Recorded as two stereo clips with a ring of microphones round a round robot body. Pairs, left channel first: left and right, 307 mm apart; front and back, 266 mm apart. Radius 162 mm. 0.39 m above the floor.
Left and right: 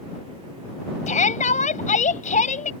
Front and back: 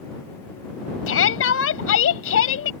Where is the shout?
25° left.